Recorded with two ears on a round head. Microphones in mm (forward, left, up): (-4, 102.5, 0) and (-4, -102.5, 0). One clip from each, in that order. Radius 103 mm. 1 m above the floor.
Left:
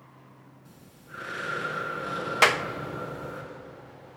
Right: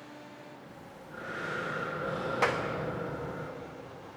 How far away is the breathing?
About 6 m.